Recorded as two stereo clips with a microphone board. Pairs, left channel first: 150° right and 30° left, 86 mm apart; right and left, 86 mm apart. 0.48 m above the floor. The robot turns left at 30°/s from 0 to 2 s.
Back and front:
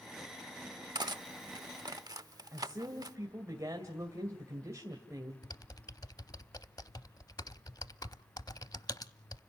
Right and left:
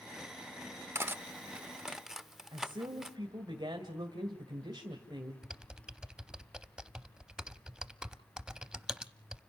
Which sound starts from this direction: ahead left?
Cutlery clinking, at 0.9 s.